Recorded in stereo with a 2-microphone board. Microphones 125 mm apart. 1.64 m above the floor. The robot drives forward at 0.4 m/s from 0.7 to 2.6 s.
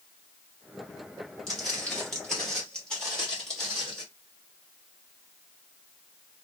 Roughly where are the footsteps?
Centre.